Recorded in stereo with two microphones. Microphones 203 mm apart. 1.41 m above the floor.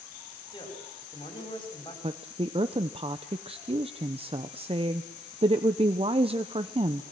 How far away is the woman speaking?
About 0.9 m.